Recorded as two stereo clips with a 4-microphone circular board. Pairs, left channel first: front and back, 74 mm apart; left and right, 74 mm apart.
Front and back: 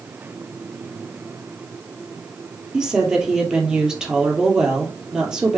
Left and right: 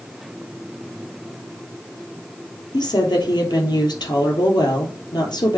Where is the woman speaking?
105° left, 3 m.